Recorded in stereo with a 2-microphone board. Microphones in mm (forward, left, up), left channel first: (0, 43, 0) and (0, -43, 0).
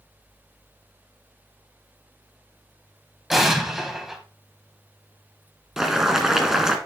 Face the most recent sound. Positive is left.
turn(degrees=-5)  # may be behind; listen again after turning